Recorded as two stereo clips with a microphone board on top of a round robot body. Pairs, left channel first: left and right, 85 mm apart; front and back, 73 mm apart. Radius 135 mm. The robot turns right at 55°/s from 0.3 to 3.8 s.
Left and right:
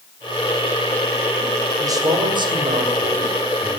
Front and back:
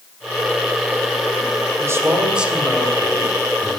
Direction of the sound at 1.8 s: 135° right.